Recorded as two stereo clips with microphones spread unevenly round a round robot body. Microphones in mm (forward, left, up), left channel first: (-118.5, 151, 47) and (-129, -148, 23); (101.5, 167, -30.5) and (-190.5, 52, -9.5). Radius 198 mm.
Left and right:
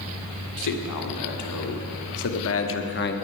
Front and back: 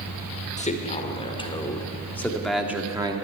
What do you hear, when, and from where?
0.6 s a man speaking: 85° left, 2.5 m; by 3.1 s 130° left, 1.3 m